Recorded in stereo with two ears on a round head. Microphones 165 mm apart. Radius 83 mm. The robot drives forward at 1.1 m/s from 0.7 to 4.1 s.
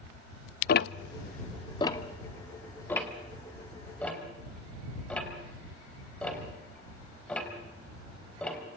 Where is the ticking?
50° left (ahead or behind), 0.5 m; by 8.6 s 5° left (ahead or behind), 3.5 m.